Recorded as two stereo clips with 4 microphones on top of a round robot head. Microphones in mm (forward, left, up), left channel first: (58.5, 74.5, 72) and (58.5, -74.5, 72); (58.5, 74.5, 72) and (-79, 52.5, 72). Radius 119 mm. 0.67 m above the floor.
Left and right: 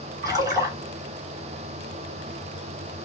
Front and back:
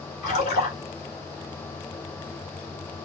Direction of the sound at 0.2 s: 25° right.